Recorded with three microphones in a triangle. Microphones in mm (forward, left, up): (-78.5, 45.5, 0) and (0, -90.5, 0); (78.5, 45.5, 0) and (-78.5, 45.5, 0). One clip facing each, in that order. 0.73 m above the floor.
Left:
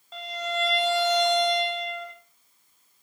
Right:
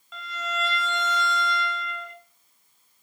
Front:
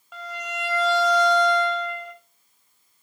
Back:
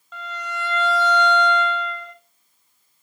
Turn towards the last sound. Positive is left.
turn(degrees=75)